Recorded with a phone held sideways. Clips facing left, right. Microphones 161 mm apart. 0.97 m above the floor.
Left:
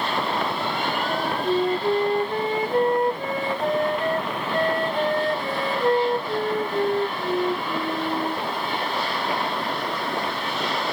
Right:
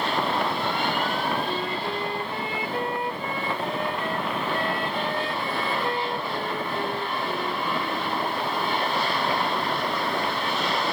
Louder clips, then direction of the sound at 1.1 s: Left 4 dB; 45° left (ahead or behind).